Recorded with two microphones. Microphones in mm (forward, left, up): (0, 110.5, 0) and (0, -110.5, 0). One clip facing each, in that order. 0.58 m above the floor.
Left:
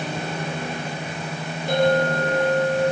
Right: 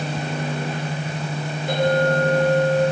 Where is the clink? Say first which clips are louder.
Even; centre (ahead or behind), 4 m.